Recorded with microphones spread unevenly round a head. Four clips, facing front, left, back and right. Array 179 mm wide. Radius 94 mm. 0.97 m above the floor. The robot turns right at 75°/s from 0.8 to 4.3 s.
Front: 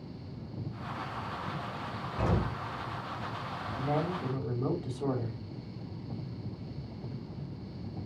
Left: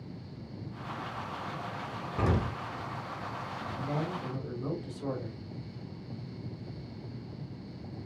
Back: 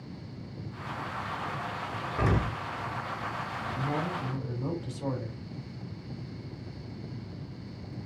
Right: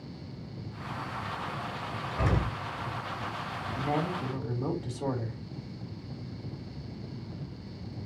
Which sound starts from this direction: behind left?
An explosion, at 2.2 s.